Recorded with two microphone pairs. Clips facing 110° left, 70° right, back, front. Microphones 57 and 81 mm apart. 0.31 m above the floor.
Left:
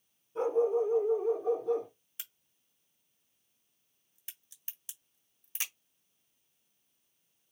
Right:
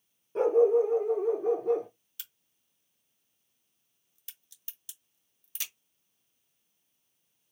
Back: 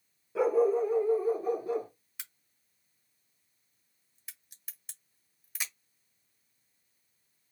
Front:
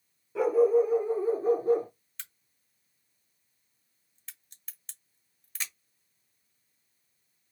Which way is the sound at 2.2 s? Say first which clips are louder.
Even, front 1 dB; 110° left.